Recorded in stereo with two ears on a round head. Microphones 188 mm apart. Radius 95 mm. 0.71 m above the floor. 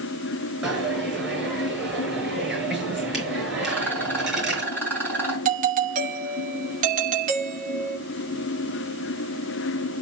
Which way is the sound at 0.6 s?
Centre (ahead or behind).